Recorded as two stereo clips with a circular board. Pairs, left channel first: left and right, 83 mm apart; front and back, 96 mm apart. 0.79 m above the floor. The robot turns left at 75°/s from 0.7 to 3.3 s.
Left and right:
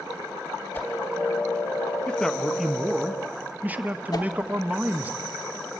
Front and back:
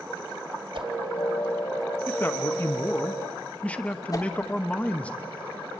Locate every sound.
0.7 s a whoosh: 165° left, 2 m; by 0.9 s 150° left, 2 m
2.1 s a man speaking: 40° left, 0.8 m; by 5.1 s 55° right, 0.8 m
4.1 s a whoosh: 50° left, 1.1 m